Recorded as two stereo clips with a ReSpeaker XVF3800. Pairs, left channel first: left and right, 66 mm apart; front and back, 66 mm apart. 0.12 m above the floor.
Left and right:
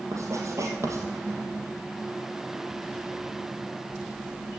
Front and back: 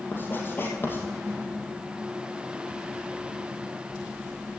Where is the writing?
55° right, 3 m.